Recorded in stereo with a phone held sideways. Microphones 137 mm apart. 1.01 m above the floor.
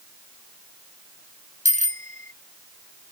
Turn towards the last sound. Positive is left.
turn(degrees=-65)  # may be behind; listen again after turning